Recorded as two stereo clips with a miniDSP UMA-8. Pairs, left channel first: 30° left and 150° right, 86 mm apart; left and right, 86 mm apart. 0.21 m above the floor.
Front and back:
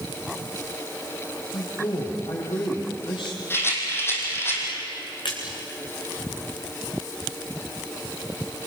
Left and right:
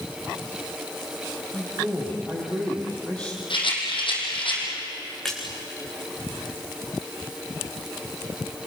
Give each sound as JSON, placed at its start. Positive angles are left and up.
{"t": 1.5, "sound": "a man speaking", "azimuth_deg": 15, "distance_m": 8.5}
{"t": 3.5, "sound": "a rattle", "azimuth_deg": 90, "distance_m": 5.5}
{"t": 5.2, "sound": "a splash", "azimuth_deg": 5, "distance_m": 6.0}